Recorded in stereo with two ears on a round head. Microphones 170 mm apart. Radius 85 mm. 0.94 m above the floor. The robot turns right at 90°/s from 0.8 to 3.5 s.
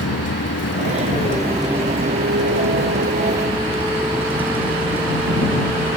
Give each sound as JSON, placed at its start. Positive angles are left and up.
{"t": 0.0, "sound": "a vehicle", "azimuth_deg": 105}